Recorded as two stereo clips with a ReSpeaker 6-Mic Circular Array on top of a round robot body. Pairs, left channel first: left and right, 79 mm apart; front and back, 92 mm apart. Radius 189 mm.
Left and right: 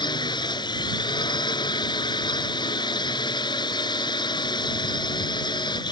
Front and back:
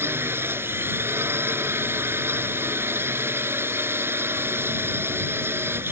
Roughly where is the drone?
Behind left.